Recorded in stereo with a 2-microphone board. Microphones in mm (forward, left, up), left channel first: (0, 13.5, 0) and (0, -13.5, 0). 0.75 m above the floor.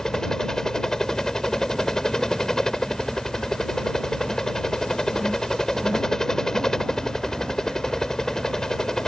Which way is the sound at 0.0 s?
20° left (ahead or behind).